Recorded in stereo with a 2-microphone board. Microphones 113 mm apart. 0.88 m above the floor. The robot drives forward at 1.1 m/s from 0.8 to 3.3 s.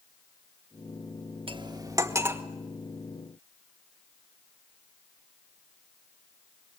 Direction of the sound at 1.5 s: 50° right (ahead or behind).